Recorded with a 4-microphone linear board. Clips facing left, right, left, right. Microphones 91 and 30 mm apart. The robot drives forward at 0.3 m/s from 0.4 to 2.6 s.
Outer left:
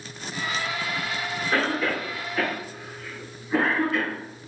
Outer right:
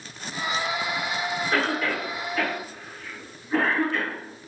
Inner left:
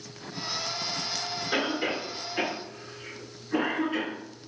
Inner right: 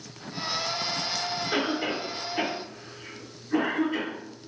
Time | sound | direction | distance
1.5 | a cough | 10° left (ahead or behind) | 1.8 m